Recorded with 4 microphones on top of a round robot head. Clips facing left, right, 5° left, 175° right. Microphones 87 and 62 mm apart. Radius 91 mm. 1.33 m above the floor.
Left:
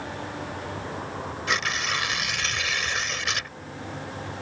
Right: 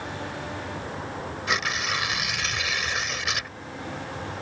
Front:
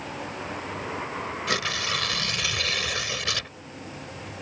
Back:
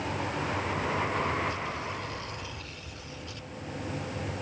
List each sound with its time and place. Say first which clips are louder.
1.5 s tearing paper: even, front 5 dB; 5° right